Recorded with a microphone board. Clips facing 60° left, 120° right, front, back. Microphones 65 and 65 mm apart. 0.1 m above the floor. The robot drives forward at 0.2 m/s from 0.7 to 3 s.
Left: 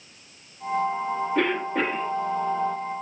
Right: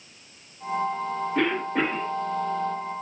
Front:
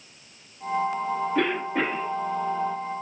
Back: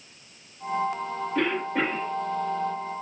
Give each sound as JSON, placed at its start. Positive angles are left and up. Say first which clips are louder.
{"t": 1.4, "sound": "a cough", "louder": "right 1 dB, back 2 dB", "azimuth_deg": -75, "distance_m": 1.3}